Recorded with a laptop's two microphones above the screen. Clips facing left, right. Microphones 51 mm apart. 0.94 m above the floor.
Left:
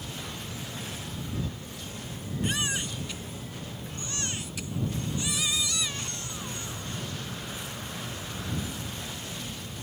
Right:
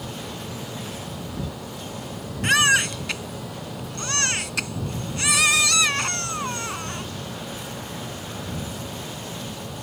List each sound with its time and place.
0.0 s a fan: 80° right
2.4 s a baby crying: 75° right (ahead or behind)